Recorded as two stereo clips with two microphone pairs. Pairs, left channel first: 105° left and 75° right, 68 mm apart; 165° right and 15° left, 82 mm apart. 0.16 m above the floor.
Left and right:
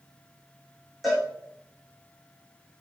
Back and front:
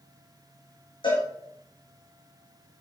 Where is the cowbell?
165° right, 3.5 m.